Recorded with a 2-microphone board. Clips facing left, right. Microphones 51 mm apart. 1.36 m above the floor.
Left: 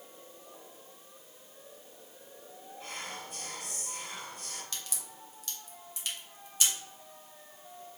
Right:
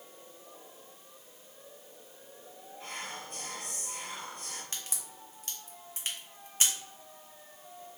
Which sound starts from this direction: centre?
Whispering, at 2.8 s.